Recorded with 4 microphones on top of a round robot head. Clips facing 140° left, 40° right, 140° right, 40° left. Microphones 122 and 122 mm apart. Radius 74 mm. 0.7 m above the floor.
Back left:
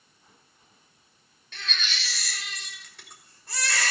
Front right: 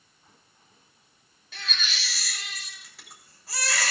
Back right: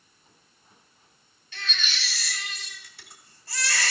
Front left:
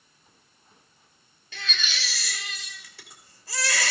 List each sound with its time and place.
1.5 s a baby crying: 45° left, 1.8 m